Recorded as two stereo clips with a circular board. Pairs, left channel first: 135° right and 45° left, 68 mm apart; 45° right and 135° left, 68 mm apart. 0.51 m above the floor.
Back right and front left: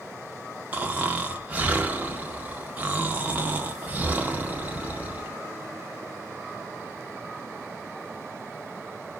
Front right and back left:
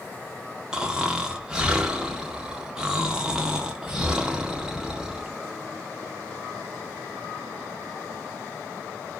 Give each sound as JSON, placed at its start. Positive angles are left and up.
{"t": 0.7, "sound": "snoring", "azimuth_deg": 70, "distance_m": 0.6}